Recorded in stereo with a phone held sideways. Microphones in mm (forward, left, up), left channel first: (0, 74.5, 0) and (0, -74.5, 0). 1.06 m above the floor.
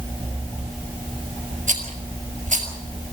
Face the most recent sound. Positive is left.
turn(degrees=-60)  # may be behind; listen again after turning